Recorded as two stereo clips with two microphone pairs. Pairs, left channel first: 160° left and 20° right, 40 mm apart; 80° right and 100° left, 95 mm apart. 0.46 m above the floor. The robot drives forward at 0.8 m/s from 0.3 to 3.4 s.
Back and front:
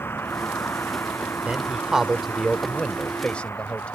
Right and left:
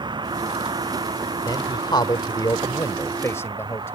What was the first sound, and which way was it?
A vehicle, 135° left.